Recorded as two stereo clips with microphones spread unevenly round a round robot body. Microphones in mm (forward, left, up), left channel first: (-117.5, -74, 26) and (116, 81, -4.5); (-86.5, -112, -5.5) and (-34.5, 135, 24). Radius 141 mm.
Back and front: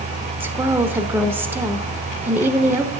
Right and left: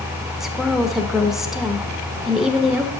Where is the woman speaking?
25° right, 0.9 m.